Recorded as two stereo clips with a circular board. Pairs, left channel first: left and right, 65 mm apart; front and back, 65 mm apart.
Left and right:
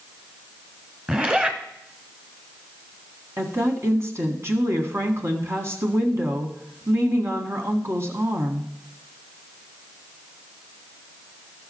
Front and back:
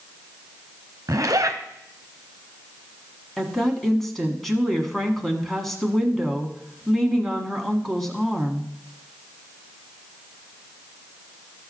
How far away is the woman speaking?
About 1.5 m.